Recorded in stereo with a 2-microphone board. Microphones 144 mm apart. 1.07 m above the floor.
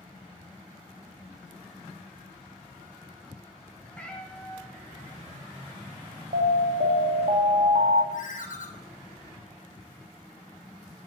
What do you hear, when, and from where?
3.9 s a cat meowing: 10° left (ahead or behind), 1.5 m
6.3 s an alarm: 80° right, 0.9 m
8.1 s a ringtone: 65° left (ahead or behind), 1.3 m